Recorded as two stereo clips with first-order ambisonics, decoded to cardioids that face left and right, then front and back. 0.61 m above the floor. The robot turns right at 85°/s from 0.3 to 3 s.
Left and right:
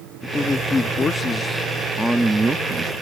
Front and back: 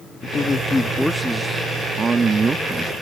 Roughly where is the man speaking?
Ahead left.